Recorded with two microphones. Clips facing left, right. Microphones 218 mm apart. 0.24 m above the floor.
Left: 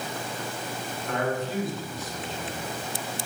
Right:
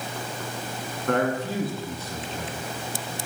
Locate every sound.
1.1 s a man speaking: 60° right (ahead or behind), 2.5 m